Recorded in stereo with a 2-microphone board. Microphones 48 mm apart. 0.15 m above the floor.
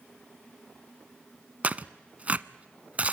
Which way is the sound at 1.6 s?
30° right (ahead or behind).